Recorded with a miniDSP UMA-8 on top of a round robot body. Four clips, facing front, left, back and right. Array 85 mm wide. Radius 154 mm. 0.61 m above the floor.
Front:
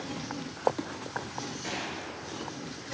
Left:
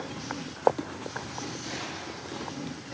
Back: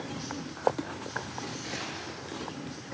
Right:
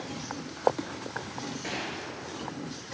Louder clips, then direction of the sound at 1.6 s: Right 1 dB, front 2 dB; 70° right.